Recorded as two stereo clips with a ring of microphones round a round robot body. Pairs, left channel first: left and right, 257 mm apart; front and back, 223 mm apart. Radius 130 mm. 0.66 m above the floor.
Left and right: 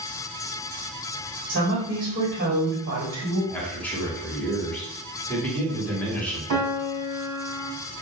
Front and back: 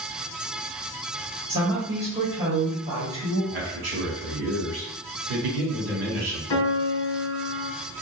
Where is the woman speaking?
130° right, 2 m.